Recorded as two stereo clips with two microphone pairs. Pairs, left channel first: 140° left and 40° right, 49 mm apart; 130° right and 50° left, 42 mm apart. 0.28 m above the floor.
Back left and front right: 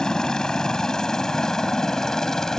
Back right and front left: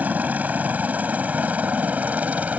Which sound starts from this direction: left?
A helicopter, at 0.0 s.